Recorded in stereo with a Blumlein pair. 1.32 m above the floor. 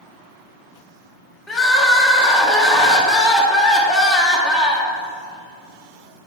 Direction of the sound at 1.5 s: 10° left.